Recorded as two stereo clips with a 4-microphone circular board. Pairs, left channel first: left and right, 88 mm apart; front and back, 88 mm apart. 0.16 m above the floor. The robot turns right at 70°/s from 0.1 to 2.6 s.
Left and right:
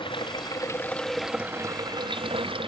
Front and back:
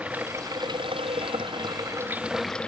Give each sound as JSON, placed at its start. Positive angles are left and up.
{"t": 0.0, "sound": "running water", "azimuth_deg": 105}